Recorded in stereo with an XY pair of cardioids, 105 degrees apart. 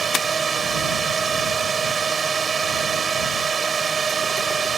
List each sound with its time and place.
0.0 s a drone: 35° right